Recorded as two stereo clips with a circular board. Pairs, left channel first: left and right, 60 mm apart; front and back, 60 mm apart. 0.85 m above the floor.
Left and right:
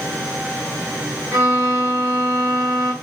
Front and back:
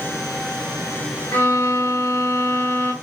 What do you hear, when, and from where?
1.3 s a violin: 50° right, 1.4 m